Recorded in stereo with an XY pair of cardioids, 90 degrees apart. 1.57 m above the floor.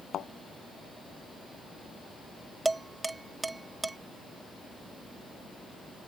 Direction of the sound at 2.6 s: 20° right.